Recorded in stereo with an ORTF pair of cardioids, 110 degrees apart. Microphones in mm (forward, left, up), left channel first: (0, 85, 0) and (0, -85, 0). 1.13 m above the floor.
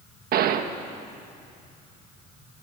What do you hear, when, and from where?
0.3 s a gunshot: 65° right, 1.5 m